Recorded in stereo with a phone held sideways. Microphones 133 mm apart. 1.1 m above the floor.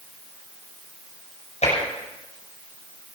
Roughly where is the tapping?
Left.